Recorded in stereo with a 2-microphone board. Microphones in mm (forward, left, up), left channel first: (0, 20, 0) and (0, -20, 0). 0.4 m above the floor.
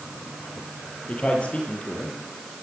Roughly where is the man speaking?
Left.